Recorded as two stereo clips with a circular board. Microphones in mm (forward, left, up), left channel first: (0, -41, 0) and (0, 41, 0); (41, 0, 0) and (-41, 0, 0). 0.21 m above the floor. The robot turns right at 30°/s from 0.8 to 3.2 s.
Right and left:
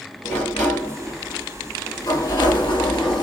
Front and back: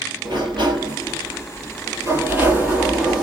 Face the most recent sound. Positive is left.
turn(degrees=-90)